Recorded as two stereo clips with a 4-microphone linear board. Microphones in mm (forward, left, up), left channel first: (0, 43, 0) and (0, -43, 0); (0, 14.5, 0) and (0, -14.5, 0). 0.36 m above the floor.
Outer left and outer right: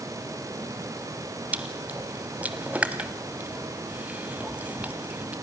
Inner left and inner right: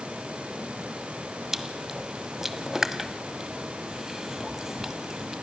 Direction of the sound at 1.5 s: 15° right (ahead or behind).